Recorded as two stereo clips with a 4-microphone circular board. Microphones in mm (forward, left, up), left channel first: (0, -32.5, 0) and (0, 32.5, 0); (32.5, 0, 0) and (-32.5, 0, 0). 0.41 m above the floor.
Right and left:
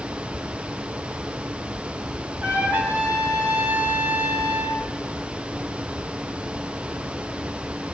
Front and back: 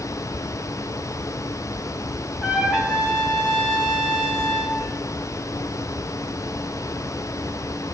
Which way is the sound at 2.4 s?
115° left.